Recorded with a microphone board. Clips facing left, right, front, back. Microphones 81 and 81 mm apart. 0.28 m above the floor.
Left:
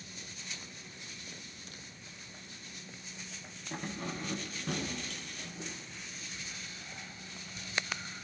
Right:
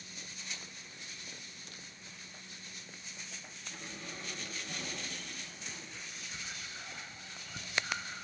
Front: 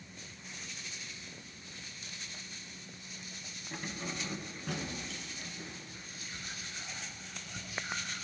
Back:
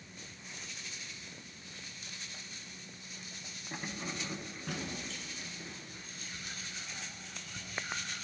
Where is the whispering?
80° right, 3 m.